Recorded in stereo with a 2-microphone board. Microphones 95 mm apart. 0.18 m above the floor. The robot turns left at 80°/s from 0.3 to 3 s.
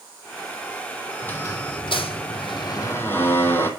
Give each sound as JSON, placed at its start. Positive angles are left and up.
{"t": 1.2, "sound": "a squeak", "azimuth_deg": 165, "distance_m": 0.7}